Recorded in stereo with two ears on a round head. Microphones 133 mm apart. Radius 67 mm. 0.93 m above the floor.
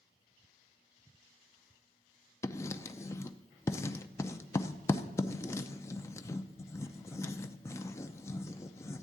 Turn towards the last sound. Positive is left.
turn(degrees=20)  # may be behind; listen again after turning